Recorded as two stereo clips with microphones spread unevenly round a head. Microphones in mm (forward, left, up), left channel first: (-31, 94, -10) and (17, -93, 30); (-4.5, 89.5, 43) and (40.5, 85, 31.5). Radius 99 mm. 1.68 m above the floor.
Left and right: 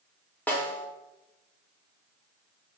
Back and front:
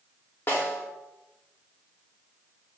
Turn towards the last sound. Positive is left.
turn(degrees=-165)